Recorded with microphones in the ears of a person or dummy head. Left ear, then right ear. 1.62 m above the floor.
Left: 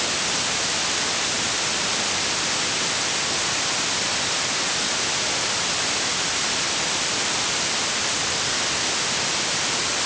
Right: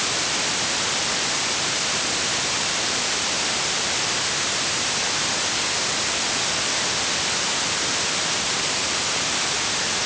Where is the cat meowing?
No cat meowing in this recording.